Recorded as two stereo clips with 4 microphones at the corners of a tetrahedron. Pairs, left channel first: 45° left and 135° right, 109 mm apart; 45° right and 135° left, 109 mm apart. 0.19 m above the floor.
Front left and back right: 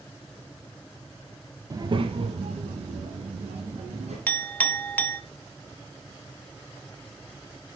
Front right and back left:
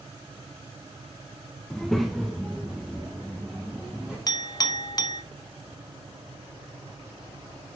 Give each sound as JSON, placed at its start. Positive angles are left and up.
{"t": 1.7, "sound": "a child speaking", "azimuth_deg": -125, "distance_m": 0.6}
{"t": 4.3, "sound": "a clink", "azimuth_deg": -20, "distance_m": 0.9}